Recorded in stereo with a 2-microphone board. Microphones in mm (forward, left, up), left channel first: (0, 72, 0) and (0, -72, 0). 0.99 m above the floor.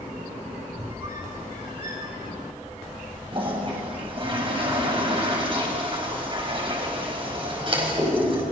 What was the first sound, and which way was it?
A squeak, 40° right (ahead or behind).